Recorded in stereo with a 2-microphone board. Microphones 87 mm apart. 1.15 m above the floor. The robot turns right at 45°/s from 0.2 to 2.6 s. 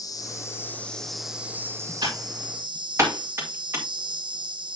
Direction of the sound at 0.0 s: 140° left.